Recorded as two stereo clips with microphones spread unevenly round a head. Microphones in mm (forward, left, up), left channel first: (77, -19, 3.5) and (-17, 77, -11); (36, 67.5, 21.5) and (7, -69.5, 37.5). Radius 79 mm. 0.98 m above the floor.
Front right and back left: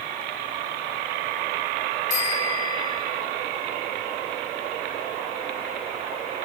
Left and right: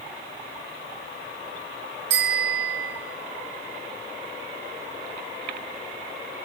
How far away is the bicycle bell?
About 6.5 m.